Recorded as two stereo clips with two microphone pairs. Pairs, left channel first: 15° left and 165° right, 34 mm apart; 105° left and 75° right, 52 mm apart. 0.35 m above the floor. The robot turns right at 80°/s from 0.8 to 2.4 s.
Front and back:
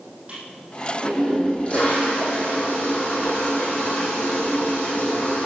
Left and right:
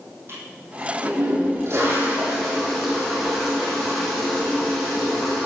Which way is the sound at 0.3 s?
115° right.